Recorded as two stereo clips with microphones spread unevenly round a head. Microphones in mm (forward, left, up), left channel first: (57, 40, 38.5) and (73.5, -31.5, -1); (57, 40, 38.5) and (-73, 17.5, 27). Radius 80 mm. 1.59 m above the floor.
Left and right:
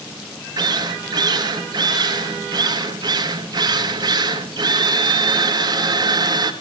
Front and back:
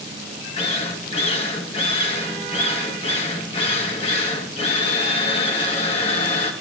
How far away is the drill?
About 2.5 m.